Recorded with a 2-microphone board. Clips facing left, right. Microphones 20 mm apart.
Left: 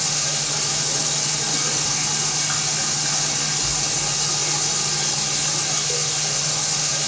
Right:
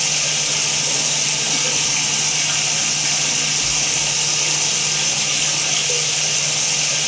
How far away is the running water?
About 2.5 m.